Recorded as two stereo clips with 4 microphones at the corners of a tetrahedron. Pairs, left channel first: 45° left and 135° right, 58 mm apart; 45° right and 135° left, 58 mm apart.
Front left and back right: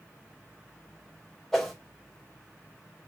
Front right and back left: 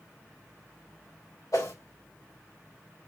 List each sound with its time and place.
1.5 s a whoosh: 35° right, 2.5 m